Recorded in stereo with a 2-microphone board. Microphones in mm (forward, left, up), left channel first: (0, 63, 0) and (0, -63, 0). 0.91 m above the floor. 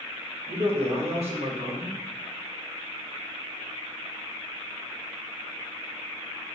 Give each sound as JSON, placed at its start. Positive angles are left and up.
{"t": 0.5, "sound": "a man speaking", "side_deg": -60, "distance_m": 1.3}